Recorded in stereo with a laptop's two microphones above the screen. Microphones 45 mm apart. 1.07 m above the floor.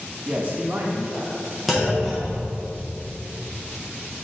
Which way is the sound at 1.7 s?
5° right (ahead or behind).